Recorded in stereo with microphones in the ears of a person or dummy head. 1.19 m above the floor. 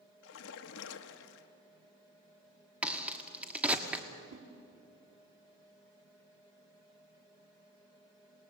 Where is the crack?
10° right (ahead or behind), 1.5 m.